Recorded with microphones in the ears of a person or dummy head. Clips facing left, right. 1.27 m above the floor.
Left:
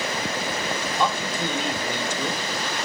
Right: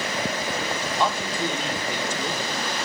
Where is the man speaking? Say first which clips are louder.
Even; 85° left, 5 m.